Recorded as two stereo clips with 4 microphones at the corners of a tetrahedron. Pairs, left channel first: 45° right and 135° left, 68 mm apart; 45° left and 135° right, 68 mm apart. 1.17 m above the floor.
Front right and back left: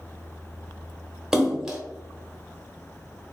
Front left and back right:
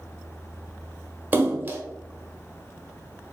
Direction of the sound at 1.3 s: 150° right.